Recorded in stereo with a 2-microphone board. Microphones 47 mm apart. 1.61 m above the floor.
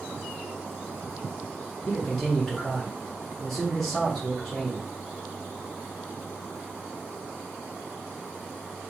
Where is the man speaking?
5° left (ahead or behind), 0.6 m.